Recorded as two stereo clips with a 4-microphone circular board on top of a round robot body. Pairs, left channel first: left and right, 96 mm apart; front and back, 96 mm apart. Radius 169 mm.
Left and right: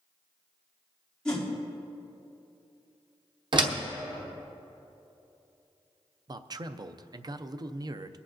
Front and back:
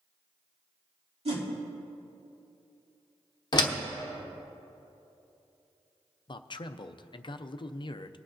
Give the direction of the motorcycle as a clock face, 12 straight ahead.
I don't hear a motorcycle.